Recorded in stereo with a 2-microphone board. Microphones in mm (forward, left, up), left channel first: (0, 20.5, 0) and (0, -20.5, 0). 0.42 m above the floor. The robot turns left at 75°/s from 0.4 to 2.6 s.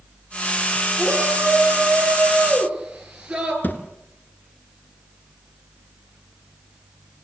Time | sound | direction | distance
1.0 | a shout | 40° right | 8 m
3.6 | a thud | 50° left (ahead or behind) | 2.5 m